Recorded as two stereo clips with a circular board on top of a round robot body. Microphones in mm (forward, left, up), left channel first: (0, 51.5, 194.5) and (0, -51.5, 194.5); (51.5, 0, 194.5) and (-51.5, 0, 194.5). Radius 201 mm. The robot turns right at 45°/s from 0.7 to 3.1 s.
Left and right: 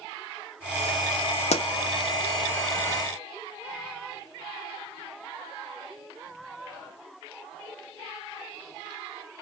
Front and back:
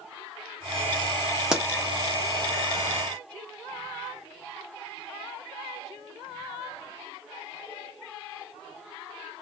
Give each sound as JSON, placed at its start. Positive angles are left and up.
{"t": 1.5, "sound": "a pop", "azimuth_deg": 95, "distance_m": 0.7}